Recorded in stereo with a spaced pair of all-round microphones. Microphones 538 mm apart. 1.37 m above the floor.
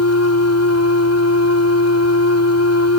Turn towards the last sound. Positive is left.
turn(degrees=30)  # may be behind; listen again after turning